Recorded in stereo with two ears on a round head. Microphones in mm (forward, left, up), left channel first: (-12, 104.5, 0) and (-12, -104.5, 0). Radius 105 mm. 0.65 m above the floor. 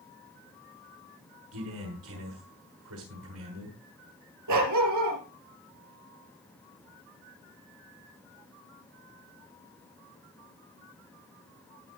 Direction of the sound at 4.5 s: 85° right.